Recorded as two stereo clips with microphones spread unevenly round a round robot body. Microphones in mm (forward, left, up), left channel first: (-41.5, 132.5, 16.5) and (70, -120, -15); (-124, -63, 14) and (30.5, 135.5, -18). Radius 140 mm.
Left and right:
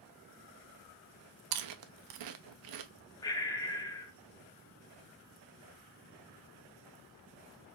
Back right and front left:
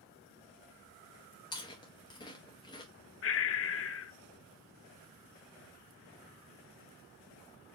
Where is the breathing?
165° right, 0.5 m.